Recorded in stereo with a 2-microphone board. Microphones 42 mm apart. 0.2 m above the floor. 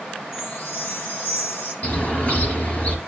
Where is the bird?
40° left (ahead or behind), 4 m.